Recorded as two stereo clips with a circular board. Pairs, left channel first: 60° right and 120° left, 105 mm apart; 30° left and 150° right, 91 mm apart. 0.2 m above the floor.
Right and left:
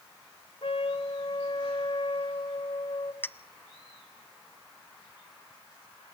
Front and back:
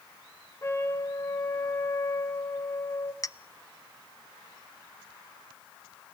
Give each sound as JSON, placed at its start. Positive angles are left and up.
{"t": 0.6, "sound": "a trumpet", "azimuth_deg": -30, "distance_m": 2.0}
{"t": 3.2, "sound": "a clink", "azimuth_deg": 0, "distance_m": 0.7}